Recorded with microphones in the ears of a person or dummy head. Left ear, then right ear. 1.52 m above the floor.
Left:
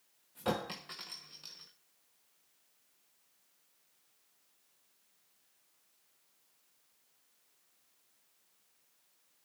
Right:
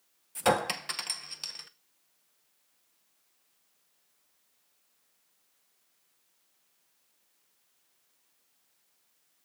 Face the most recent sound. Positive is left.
turn(degrees=-30)  # may be behind; listen again after turning